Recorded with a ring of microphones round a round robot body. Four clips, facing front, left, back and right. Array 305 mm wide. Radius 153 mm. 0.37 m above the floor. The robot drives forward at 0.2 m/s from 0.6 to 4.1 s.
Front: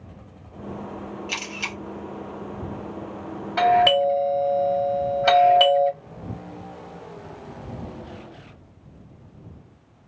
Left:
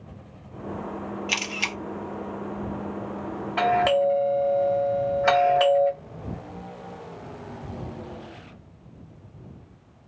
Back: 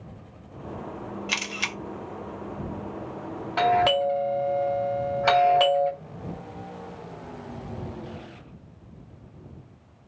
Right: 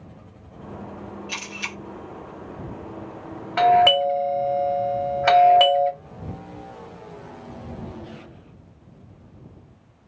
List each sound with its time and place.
1.3 s a camera shutter: 120° left, 0.7 m; by 1.8 s 125° left, 0.7 m
3.6 s a doorbell: 115° right, 1.4 m; by 5.9 s 125° right, 1.4 m